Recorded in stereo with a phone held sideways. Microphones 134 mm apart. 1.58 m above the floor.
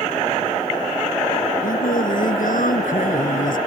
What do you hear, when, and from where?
1.6 s singing: 85° left